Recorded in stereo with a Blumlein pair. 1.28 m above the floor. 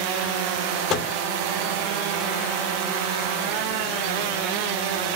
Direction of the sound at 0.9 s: 30° left.